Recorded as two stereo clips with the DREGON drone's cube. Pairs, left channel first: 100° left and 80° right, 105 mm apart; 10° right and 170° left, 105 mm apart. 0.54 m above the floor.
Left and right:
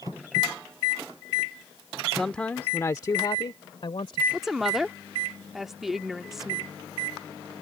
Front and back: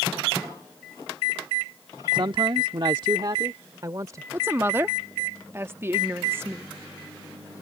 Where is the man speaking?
170° right; by 4.2 s 115° left.